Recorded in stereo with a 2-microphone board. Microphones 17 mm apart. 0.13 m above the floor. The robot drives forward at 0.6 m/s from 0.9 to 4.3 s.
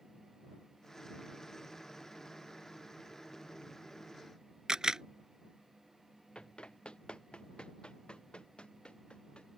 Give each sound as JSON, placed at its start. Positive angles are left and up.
{"t": 4.7, "sound": "a camera shutter", "side_deg": -45}
{"t": 6.3, "sound": "running footsteps", "side_deg": 85}